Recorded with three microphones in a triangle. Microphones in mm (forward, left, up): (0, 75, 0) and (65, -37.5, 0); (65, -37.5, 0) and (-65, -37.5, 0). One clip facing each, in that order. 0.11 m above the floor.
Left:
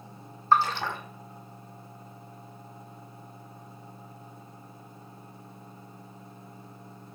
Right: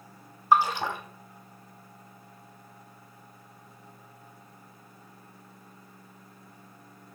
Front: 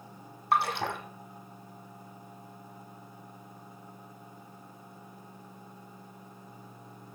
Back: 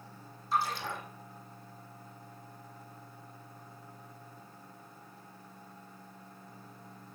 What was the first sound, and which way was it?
A splash, 20° left.